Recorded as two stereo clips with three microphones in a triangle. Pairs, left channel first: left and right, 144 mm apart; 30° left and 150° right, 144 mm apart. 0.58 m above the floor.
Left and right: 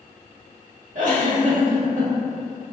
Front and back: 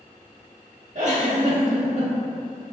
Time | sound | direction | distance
0.9 | a giggle | 115° right | 0.8 m